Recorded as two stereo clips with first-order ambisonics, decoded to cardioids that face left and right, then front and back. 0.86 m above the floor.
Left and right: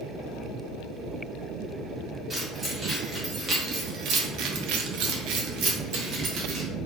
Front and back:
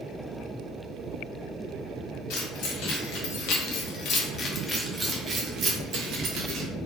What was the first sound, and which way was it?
Keys jangling, 5° right.